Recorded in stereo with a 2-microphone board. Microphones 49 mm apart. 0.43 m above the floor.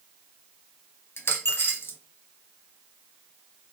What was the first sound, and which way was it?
A dropped coin, 55° left (ahead or behind).